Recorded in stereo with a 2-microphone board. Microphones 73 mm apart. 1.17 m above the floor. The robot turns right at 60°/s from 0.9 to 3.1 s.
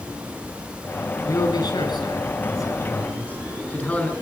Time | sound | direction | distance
1.2 | a man speaking | 45° left | 8.5 m